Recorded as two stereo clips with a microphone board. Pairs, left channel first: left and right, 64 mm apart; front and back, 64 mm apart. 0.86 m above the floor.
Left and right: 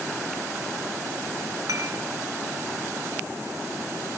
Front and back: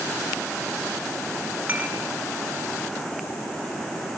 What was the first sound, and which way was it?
Dishes clattering, 115° right.